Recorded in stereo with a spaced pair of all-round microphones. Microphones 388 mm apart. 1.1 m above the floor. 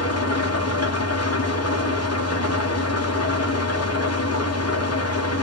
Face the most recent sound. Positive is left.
turn(degrees=40)  # may be behind; listen again after turning